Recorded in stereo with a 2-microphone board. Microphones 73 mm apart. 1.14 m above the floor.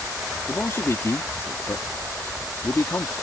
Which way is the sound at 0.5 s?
40° left (ahead or behind).